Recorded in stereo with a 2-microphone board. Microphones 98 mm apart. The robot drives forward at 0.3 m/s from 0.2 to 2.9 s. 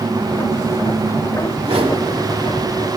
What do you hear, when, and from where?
1.6 s a whoosh: 75° right (ahead or behind), 1.0 m; by 2.0 s 70° right (ahead or behind), 1.0 m